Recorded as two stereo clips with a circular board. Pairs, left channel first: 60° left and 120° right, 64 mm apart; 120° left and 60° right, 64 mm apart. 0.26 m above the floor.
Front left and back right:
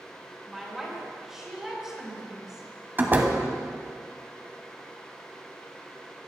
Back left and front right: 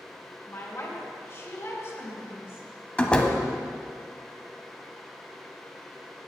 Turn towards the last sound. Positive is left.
turn(degrees=-170)